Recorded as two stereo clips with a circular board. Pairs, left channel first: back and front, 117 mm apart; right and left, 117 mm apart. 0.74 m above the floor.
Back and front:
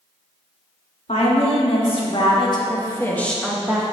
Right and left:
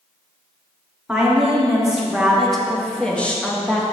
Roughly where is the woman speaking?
Behind.